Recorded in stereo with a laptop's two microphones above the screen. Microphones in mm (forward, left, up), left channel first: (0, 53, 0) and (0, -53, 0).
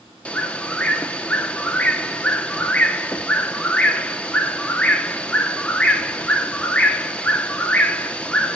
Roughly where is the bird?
Centre.